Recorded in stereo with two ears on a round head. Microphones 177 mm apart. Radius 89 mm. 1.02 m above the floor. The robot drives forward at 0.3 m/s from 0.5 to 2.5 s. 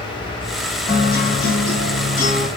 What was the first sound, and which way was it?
A guitar, 50° left (ahead or behind).